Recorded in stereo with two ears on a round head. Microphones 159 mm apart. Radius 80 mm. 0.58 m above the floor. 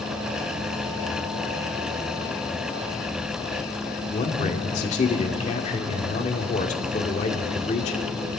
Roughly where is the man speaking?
Left.